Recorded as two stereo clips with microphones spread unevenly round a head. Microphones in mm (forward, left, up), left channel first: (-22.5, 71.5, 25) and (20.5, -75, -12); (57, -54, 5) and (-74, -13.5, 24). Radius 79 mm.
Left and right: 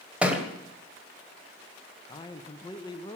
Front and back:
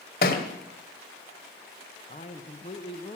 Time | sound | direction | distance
0.2 | a thud | 20° left | 1.8 m
2.1 | a man speaking | 40° left | 0.9 m